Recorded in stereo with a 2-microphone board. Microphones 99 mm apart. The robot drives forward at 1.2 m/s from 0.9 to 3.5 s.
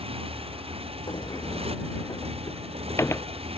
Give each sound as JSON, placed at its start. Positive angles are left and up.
{"t": 0.0, "sound": "a motorcycle", "side_deg": -75}
{"t": 1.1, "sound": "a sliding door", "side_deg": 55}